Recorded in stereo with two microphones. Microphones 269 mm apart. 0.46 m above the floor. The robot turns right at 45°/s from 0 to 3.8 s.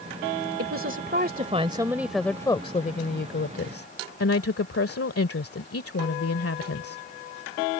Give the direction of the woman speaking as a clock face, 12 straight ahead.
2 o'clock.